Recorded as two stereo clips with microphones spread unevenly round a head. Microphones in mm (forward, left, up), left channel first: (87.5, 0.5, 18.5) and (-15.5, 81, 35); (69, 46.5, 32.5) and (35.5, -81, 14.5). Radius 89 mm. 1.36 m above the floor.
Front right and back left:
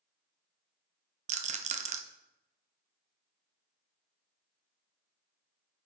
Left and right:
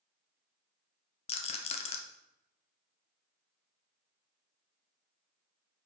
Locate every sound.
1.3 s a rattle: 120° left, 0.6 m